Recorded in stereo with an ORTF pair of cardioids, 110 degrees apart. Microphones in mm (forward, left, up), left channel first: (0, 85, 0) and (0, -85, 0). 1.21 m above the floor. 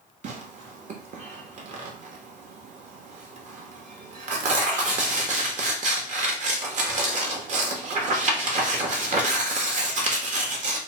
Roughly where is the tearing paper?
Ahead right.